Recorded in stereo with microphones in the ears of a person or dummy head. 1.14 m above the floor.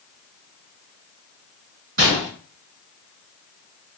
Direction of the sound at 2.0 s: 65° right (ahead or behind).